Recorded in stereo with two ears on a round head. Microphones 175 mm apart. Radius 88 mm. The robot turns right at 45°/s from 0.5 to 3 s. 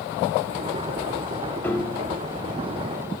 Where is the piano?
10° left (ahead or behind), 1.9 m; by 2.2 s 30° left (ahead or behind), 1.9 m.